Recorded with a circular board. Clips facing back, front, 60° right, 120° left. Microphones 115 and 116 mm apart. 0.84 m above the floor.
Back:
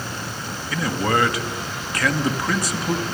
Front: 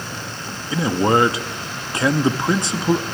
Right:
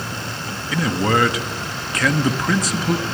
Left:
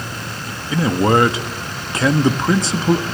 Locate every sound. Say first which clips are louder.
0.7 s a man speaking: front 5 dB, left 4 dB; 60° left, 1.1 m